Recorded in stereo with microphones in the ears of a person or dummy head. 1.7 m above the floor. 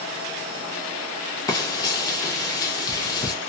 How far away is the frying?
About 0.6 m.